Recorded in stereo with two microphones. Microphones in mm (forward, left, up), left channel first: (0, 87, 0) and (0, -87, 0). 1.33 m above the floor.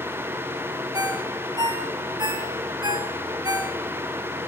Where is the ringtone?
20° right (ahead or behind), 2 m.